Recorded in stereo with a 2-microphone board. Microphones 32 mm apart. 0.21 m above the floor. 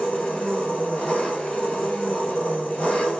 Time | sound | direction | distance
0.0 | an engine running | 35° left (ahead or behind) | 1.6 m